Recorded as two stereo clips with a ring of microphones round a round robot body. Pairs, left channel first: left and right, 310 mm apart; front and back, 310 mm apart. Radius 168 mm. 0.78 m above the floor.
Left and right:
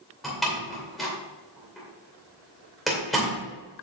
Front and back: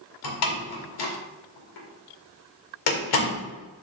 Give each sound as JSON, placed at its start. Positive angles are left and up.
{"t": 0.2, "sound": "a door slam", "azimuth_deg": 0, "distance_m": 2.0}